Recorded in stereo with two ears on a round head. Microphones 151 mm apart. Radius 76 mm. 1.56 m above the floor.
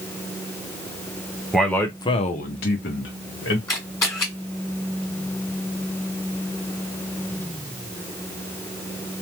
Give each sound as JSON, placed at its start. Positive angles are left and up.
{"t": 1.5, "sound": "a man speaking", "side_deg": 0, "distance_m": 0.9}
{"t": 3.7, "sound": "a camera shutter", "side_deg": 20, "distance_m": 1.9}